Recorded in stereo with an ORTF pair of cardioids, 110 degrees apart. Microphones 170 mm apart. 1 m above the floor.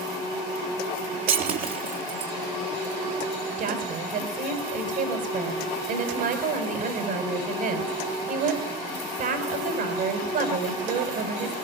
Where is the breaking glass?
60° right, 3.5 m.